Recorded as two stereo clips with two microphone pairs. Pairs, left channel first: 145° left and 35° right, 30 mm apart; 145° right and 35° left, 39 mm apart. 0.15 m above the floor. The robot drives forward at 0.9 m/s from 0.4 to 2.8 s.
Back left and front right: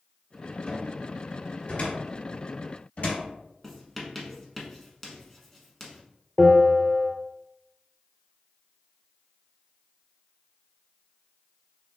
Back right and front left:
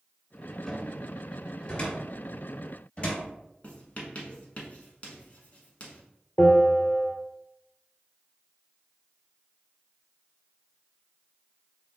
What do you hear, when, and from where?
0.7 s a cupboard door: 145° left, 1.9 m; by 3.2 s 165° left, 3.5 m
3.6 s writing: 140° right, 1.1 m
6.4 s a bell: 110° right, 1.2 m